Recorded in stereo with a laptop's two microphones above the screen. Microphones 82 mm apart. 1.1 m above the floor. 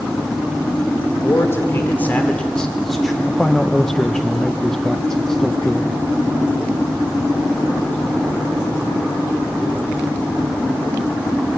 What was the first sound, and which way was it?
A man speaking, 35° left (ahead or behind).